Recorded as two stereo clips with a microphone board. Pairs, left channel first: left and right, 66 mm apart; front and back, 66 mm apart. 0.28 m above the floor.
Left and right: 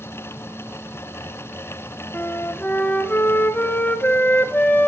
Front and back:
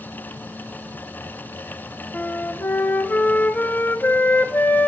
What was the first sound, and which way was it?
A flute, 45° left.